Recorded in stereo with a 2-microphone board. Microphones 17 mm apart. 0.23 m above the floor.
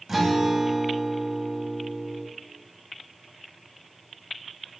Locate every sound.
0.1 s a guitar: 25° right (ahead or behind), 0.6 m